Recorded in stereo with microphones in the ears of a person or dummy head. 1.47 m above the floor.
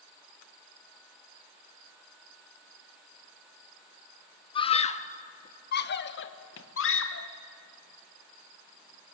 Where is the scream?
35° left (ahead or behind), 1.1 m; by 7.3 s 90° left, 1.8 m.